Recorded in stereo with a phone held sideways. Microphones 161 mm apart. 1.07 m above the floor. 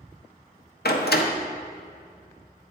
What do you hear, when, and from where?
0.8 s a door slam: 80° left, 0.6 m